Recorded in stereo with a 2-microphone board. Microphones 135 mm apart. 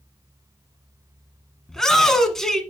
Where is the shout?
5° left (ahead or behind), 1.2 m.